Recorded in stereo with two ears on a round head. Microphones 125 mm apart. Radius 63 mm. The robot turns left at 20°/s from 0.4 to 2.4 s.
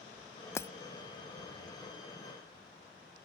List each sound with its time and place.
0.6 s breaking glass: 20° left (ahead or behind)